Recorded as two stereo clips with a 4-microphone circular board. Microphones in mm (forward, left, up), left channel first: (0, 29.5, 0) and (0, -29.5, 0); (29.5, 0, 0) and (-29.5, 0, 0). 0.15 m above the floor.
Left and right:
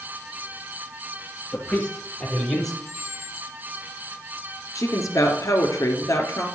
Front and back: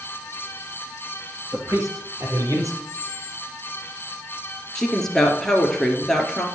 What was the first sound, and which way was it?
A man speaking, 150° left.